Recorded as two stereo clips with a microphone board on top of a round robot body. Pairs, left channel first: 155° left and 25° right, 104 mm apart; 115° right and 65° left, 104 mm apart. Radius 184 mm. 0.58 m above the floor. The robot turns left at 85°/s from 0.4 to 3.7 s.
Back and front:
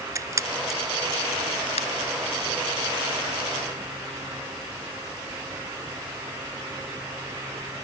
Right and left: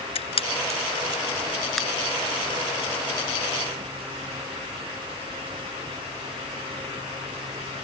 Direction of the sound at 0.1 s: 85° right.